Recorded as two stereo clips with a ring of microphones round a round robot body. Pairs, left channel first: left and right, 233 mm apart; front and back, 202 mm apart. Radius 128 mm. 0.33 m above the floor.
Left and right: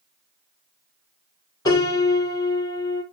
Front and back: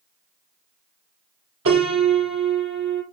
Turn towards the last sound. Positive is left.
turn(degrees=165)